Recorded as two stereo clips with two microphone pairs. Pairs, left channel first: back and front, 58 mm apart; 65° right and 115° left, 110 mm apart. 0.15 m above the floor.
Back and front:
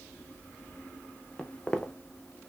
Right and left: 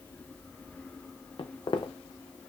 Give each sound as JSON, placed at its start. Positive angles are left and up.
{"t": 1.4, "sound": "footsteps", "azimuth_deg": -105, "distance_m": 0.6}